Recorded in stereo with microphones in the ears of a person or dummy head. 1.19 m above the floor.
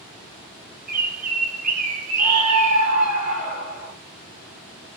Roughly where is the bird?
Right.